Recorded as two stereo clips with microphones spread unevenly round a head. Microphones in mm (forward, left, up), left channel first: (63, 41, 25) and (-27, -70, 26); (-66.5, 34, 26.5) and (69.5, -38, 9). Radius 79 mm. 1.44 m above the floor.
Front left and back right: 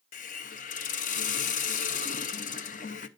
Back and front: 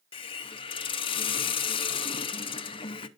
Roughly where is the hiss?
Left.